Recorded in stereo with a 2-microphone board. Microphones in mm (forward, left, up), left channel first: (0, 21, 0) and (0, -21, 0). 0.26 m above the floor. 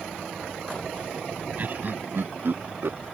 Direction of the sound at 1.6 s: 45° right (ahead or behind).